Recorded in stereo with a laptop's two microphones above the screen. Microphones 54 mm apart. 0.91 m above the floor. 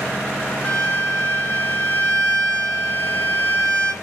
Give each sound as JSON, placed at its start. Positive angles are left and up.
{"t": 0.6, "sound": "a violin", "side_deg": 30, "distance_m": 3.5}